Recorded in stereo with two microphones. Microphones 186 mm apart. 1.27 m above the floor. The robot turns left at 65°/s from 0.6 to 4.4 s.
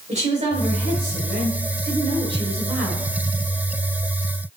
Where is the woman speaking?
40° right, 3.5 m; by 3.0 s 160° left, 3.5 m.